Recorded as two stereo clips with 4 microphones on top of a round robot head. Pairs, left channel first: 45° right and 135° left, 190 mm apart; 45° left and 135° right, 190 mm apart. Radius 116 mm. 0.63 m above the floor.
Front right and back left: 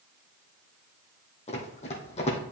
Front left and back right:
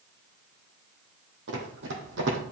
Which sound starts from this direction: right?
Running footsteps, at 1.5 s.